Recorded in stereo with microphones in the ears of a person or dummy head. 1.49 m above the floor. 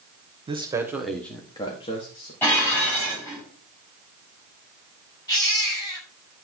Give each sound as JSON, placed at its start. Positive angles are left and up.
{"t": 0.5, "sound": "a man speaking", "side_deg": -25, "distance_m": 1.4}
{"t": 2.4, "sound": "dishes clattering", "side_deg": 15, "distance_m": 7.5}
{"t": 5.3, "sound": "a baby crying", "side_deg": 25, "distance_m": 7.5}